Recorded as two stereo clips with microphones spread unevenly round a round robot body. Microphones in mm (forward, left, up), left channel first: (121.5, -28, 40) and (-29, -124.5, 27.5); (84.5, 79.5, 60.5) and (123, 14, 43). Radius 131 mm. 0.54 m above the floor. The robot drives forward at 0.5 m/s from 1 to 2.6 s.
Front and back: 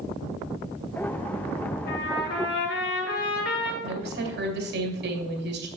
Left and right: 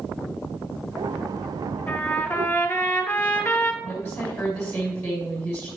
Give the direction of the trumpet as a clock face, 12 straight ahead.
10 o'clock.